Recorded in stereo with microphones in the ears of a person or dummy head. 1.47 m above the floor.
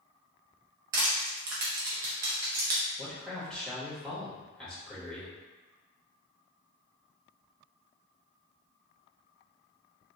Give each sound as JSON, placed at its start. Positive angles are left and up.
{"t": 0.9, "sound": "crushing", "side_deg": -25, "distance_m": 0.5}
{"t": 3.0, "sound": "a man speaking", "side_deg": 0, "distance_m": 1.6}